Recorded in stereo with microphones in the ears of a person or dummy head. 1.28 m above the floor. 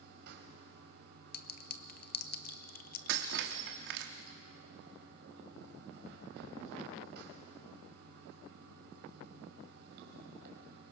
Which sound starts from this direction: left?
A clink, at 1.3 s.